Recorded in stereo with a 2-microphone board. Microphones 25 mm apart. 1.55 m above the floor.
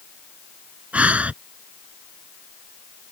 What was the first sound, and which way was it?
Breathing, 60° right (ahead or behind).